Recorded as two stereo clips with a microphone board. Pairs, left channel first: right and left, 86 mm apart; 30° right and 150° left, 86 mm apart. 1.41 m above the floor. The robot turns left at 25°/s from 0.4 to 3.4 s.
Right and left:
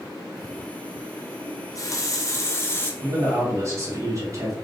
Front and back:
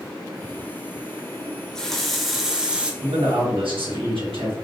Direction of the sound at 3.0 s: 155° left.